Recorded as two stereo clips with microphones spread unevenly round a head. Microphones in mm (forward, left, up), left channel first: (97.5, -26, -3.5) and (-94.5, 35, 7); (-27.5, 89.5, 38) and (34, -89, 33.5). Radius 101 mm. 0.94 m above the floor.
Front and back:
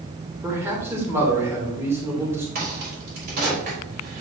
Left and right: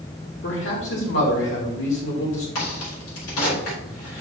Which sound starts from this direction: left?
A man speaking, at 0.4 s.